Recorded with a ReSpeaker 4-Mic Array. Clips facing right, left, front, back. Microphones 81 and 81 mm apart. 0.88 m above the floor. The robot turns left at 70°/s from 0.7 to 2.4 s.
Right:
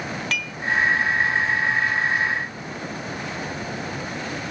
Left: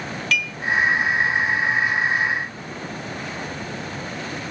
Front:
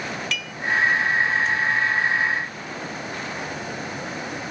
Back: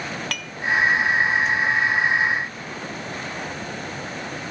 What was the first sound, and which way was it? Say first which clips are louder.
Dishes clattering: left 4 dB, front 1 dB; 140° right.